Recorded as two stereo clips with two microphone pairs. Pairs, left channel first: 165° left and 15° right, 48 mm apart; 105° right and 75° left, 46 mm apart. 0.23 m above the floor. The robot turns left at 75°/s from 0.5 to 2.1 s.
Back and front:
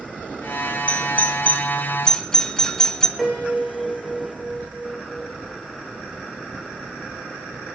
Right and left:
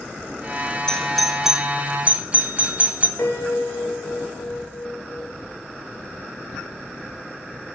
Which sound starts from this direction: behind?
A doorbell, at 0.9 s.